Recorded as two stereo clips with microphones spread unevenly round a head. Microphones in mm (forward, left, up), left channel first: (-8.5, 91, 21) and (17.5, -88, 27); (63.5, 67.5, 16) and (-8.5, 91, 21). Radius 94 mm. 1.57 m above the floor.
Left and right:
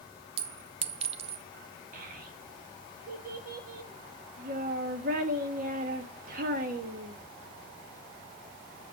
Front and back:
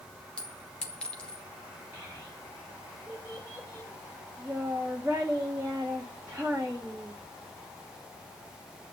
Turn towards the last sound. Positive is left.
turn(degrees=-120)